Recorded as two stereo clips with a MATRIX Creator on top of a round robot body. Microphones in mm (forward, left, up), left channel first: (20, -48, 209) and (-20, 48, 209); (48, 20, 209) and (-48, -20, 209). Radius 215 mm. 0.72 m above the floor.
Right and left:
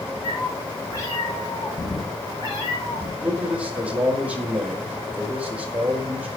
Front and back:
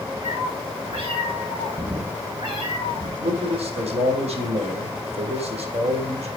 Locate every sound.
0.2 s a cat meowing: 130° right, 6.5 m; by 3.1 s 115° right, 7.5 m
3.2 s a man speaking: 170° right, 5 m